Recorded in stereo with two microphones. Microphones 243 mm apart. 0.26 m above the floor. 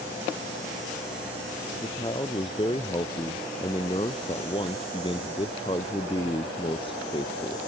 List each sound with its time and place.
1.8 s a man speaking: 20° left (ahead or behind)